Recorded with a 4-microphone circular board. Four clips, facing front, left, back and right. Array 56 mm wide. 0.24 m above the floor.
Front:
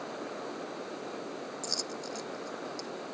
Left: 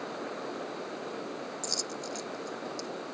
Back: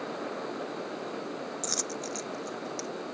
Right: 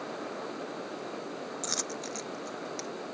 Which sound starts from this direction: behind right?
A dropped coin, at 1.6 s.